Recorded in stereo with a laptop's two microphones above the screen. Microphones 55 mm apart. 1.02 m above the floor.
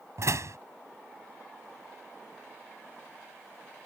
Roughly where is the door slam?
Right.